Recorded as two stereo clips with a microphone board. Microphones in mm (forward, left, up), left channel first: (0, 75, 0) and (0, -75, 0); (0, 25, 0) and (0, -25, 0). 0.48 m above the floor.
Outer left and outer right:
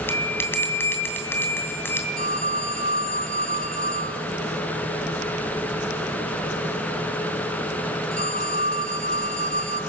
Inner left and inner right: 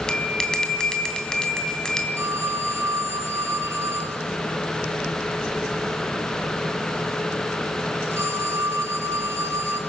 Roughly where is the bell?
Centre.